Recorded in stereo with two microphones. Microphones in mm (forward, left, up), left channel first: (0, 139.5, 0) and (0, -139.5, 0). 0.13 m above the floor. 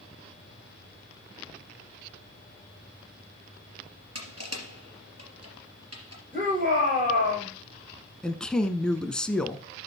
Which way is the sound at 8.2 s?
5° left (ahead or behind).